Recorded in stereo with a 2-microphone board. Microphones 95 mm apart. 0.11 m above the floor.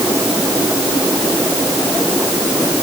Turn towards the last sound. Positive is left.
No sound to turn to.